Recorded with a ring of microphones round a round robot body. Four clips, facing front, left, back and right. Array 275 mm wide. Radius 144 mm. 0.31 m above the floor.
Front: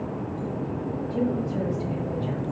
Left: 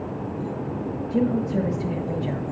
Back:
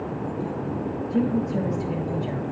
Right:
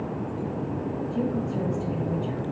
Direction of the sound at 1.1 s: 100° left.